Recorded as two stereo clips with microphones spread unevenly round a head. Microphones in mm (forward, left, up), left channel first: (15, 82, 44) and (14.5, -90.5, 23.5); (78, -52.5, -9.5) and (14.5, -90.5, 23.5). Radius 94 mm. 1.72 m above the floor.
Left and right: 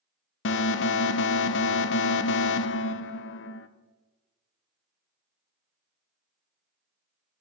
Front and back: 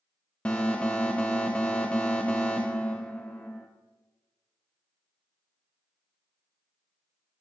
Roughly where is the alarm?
Left.